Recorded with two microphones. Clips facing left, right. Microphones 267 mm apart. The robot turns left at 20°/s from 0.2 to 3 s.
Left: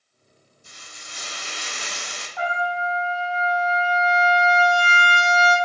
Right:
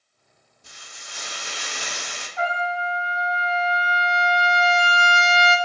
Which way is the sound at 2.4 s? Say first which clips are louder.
Even; 25° right (ahead or behind).